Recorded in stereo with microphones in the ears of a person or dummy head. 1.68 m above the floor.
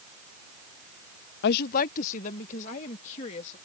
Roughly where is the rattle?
I don't hear a rattle.